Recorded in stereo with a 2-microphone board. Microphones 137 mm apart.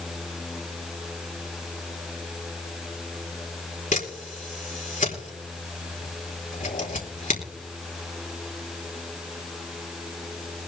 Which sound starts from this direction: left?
A camera shutter, at 3.9 s.